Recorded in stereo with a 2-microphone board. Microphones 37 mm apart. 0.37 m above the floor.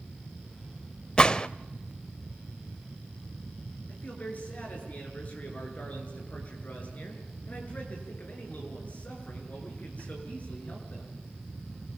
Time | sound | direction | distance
1.2 | a gunshot | 20° left (ahead or behind) | 0.6 m
3.9 | a man speaking | 40° left (ahead or behind) | 7.5 m